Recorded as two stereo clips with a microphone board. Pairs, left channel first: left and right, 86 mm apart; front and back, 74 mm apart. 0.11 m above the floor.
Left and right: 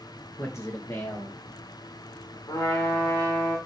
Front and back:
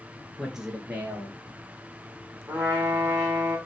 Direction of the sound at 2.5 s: 110° left.